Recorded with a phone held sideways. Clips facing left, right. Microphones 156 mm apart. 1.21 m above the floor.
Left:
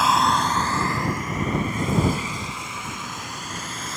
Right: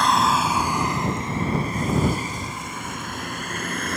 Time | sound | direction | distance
0.0 | a vehicle | 5° left (ahead or behind) | ?